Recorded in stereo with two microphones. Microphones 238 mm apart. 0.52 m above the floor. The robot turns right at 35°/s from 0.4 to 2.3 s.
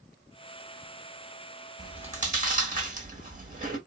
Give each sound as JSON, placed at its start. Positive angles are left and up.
{"t": 1.8, "sound": "chewing", "side_deg": -20, "distance_m": 1.8}